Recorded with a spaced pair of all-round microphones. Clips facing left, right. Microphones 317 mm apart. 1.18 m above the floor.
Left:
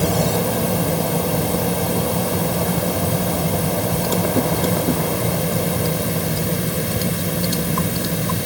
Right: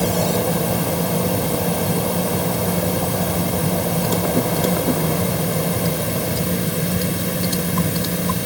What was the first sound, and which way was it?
Only background noise.